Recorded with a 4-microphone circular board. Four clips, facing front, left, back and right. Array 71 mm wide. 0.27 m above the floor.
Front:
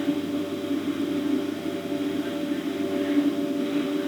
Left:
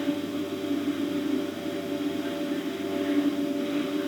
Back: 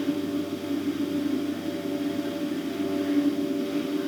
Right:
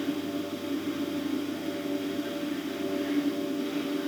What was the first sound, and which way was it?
Only background noise.